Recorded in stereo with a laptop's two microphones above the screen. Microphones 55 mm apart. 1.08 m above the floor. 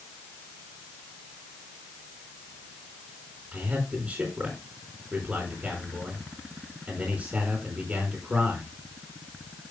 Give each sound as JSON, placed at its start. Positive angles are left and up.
{"t": 3.5, "sound": "a man speaking", "side_deg": -25, "distance_m": 3.5}